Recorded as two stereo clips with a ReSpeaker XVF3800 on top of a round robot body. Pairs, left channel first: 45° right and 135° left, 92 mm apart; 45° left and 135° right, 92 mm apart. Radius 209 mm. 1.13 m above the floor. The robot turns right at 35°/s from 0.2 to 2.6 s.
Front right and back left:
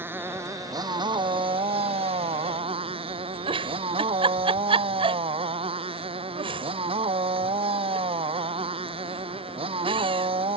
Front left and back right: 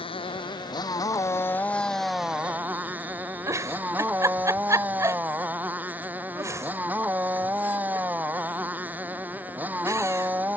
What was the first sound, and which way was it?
A motorcycle, 70° left.